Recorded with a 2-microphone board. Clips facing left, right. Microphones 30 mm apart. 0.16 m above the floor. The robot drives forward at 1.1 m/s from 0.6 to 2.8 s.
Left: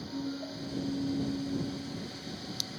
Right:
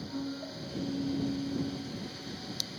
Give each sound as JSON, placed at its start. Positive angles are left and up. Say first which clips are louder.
{"t": 0.1, "sound": "a piano", "louder": "left 2 dB", "side_deg": -25, "distance_m": 5.5}